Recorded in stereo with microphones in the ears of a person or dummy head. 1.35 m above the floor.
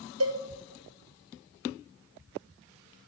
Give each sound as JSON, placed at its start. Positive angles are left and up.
{"t": 0.2, "sound": "a cowbell", "side_deg": -75, "distance_m": 1.4}